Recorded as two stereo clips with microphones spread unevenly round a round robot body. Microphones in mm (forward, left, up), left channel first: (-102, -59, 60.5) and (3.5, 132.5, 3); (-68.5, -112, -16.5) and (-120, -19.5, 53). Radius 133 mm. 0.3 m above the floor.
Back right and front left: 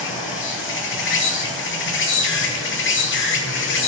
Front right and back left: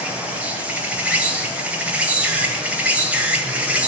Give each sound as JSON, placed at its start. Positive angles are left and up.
{"t": 0.0, "sound": "an insect", "azimuth_deg": -125, "distance_m": 1.8}